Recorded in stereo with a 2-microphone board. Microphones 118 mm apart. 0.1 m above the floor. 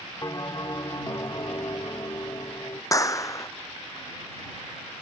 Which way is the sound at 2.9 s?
25° left (ahead or behind).